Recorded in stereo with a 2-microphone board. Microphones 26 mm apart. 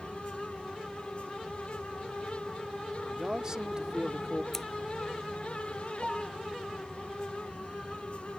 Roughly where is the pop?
No pop in this recording.